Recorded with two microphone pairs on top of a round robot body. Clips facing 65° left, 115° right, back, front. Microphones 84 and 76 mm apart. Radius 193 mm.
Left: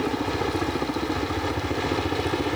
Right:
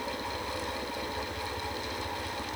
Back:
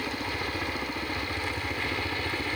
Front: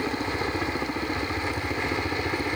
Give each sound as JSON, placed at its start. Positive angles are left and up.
{"t": 0.0, "sound": "a helicopter", "azimuth_deg": 65}